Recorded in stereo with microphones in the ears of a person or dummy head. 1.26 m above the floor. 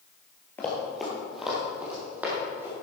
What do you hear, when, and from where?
0.6 s running footsteps: 15° left (ahead or behind), 1.7 m; by 2.7 s 20° right (ahead or behind), 3.5 m